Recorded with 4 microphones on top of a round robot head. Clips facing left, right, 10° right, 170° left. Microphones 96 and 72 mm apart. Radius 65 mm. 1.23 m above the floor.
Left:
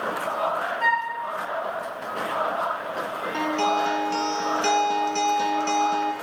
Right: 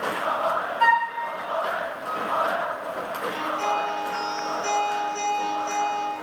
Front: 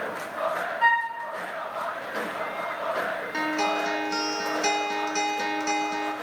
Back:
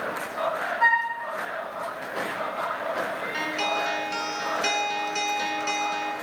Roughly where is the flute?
Behind right.